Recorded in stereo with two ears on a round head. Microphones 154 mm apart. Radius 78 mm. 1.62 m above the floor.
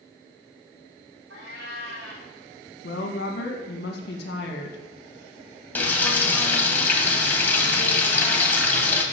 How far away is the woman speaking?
About 2 m.